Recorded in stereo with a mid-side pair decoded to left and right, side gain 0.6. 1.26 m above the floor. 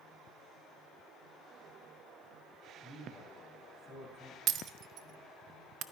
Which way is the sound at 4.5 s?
55° right.